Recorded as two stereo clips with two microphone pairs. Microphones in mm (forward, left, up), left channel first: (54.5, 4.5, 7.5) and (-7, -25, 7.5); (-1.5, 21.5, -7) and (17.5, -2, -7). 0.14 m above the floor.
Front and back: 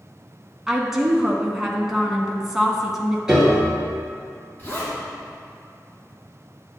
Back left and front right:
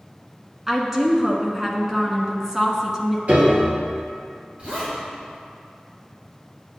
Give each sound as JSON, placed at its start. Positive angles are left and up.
{"t": 0.7, "sound": "a woman speaking", "azimuth_deg": -80, "distance_m": 1.0}
{"t": 3.3, "sound": "a piano", "azimuth_deg": -75, "distance_m": 2.0}
{"t": 4.6, "sound": "a zipper", "azimuth_deg": -25, "distance_m": 2.5}